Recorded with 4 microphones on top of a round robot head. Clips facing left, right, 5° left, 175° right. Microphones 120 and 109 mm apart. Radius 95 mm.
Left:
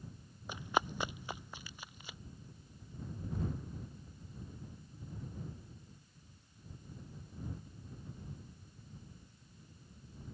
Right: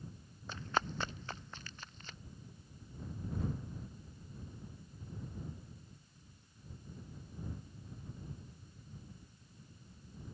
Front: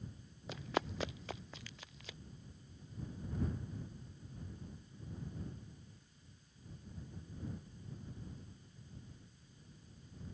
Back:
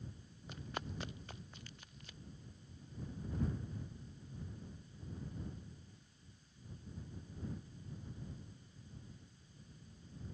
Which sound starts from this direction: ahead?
Running footsteps, at 0.5 s.